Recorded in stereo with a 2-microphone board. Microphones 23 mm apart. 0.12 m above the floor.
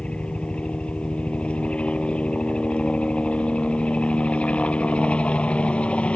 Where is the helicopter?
55° left (ahead or behind); by 6.2 s 60° left (ahead or behind).